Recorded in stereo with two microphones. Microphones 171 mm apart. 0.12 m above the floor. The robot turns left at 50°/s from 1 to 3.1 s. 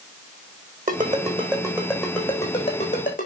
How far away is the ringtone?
About 4 m.